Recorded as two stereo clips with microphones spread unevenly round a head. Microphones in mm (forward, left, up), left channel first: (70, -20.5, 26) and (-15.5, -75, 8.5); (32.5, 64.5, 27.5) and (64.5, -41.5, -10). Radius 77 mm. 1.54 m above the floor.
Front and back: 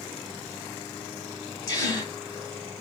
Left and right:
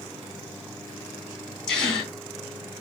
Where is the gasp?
45° left, 2.0 m.